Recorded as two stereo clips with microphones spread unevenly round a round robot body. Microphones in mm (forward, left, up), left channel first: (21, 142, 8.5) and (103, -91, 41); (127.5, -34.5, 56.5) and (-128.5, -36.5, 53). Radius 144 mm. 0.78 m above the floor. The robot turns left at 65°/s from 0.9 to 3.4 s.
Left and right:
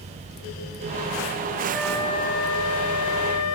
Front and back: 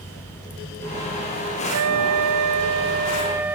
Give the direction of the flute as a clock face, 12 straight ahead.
5 o'clock.